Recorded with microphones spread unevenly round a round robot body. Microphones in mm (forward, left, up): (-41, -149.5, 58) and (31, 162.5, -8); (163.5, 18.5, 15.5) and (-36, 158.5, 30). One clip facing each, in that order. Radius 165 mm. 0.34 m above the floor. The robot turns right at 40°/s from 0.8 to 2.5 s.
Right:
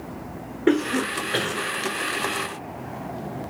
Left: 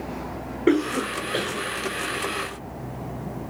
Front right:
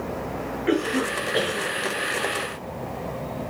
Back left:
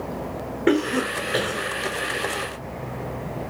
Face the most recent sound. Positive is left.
turn(degrees=-125)